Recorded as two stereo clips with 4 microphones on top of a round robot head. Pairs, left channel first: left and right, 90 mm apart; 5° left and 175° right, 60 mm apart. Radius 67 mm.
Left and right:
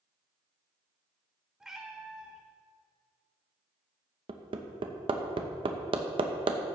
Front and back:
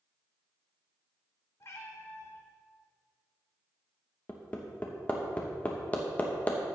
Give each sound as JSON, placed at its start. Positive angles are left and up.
{"t": 1.6, "sound": "a cat meowing", "azimuth_deg": -10, "distance_m": 0.8}
{"t": 4.3, "sound": "hammering", "azimuth_deg": -65, "distance_m": 0.9}